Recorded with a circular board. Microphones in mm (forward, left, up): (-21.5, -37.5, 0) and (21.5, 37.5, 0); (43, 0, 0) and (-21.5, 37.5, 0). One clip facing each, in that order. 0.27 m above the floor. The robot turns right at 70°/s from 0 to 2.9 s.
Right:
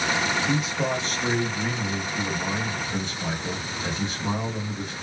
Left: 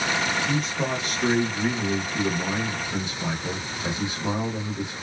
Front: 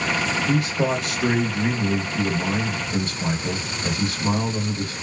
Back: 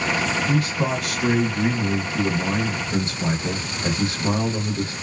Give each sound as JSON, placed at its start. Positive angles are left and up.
{"t": 0.5, "sound": "a man speaking", "azimuth_deg": -50, "distance_m": 1.1}